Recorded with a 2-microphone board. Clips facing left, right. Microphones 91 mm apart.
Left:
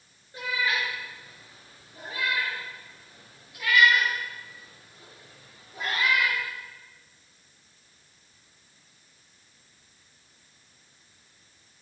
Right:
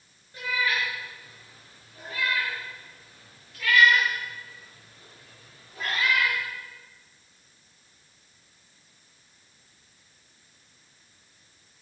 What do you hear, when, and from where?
0.3 s a cat meowing: 25° left (ahead or behind), 6.5 m; by 6.4 s 15° left (ahead or behind), 10.5 m